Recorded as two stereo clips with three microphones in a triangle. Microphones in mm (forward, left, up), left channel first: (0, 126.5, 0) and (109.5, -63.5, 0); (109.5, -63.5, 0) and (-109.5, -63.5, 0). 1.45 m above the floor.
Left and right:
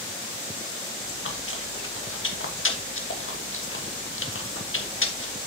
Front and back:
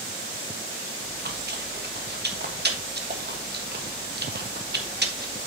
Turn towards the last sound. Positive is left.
turn(degrees=140)